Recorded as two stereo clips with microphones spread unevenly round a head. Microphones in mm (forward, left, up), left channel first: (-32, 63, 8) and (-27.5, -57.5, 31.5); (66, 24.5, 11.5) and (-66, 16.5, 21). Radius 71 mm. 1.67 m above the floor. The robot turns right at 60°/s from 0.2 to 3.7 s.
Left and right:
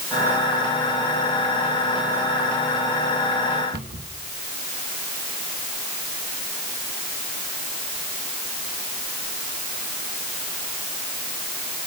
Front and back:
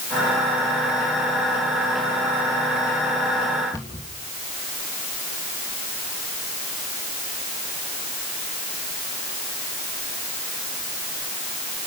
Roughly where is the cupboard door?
Right.